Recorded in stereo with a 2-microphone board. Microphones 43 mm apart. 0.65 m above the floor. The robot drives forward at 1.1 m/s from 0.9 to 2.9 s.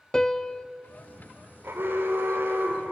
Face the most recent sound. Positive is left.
turn(degrees=-60)  # may be behind; listen again after turning